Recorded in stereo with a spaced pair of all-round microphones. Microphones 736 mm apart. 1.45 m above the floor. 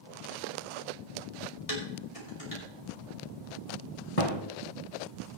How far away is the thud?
About 2.5 m.